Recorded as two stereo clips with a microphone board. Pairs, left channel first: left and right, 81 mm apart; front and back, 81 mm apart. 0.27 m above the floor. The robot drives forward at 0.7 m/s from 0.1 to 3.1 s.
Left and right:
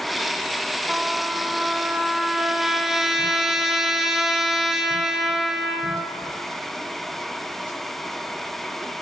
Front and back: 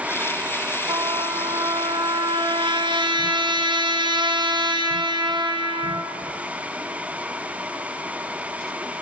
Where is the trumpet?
170° right, 1.2 m; by 6.1 s 175° right, 2.5 m.